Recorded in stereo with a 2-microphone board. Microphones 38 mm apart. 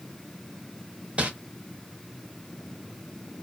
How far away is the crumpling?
About 0.7 m.